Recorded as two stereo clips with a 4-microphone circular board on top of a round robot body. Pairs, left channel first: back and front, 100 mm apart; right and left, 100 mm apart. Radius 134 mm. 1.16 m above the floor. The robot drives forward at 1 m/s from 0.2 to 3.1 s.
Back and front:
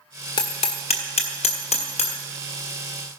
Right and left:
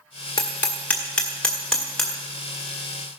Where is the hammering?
140° right, 0.6 m; by 2.2 s 175° right, 2 m.